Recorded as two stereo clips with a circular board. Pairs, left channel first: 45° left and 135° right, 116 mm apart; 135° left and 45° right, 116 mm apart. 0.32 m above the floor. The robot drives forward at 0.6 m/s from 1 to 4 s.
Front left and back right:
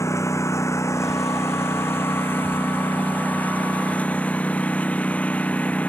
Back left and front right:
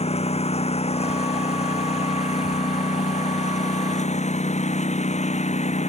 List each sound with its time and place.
0.0 s a lawn mower: 110° left; by 5.9 s 125° left